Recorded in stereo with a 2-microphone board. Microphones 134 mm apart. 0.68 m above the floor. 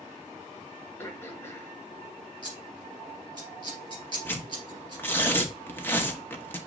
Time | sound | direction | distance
1.0 | throat clearing | 20° left (ahead or behind) | 1.1 m
2.4 | scissors | 30° right (ahead or behind) | 3 m
4.2 | tearing paper | 15° left (ahead or behind) | 0.8 m